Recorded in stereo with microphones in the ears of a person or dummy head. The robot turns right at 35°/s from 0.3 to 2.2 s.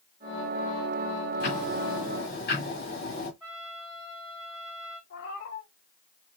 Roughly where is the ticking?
Left.